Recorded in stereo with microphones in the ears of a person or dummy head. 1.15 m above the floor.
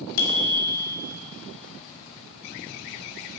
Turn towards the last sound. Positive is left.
turn(degrees=85)